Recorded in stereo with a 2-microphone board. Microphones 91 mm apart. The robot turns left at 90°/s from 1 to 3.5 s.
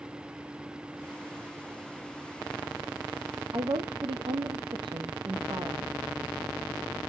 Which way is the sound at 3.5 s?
65° right (ahead or behind).